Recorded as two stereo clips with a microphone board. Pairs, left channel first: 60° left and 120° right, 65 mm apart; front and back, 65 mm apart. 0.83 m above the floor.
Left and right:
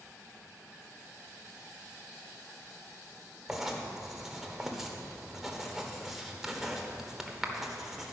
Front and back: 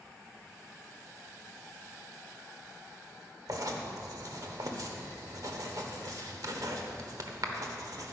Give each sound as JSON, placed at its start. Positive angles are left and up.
{"t": 3.5, "sound": "writing", "azimuth_deg": 155, "distance_m": 1.2}